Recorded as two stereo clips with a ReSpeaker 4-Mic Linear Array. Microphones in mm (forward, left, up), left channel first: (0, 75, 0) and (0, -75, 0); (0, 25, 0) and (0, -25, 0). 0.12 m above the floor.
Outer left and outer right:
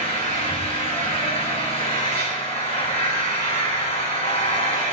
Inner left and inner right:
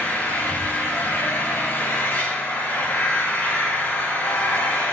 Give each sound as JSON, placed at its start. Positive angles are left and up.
{"t": 0.0, "sound": "an engine running", "side_deg": 55, "distance_m": 8.5}